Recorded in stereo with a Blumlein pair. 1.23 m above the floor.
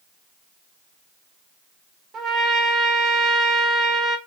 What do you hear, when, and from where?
2.1 s a trumpet: 20° right, 1.8 m